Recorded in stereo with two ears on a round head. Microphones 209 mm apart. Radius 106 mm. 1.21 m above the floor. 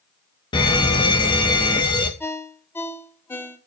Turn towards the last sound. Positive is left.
turn(degrees=10)  # may be behind; listen again after turning